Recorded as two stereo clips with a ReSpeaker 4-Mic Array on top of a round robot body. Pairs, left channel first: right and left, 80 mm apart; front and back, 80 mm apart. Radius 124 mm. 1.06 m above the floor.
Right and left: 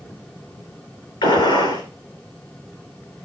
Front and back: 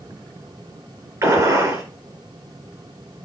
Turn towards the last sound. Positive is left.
turn(degrees=-120)